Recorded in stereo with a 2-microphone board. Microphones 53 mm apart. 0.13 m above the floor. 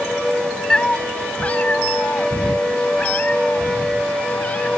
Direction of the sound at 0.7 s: 15° left (ahead or behind).